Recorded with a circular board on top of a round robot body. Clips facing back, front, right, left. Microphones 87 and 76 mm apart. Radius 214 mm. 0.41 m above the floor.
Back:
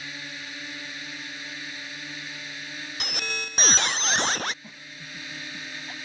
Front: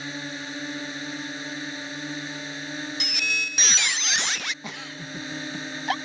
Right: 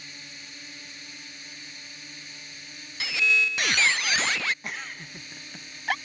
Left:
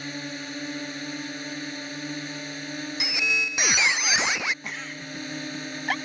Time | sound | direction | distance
0.0 | a drone | 60° left | ?
3.0 | a squeak | 155° left | ?
4.6 | a giggle | straight ahead | ?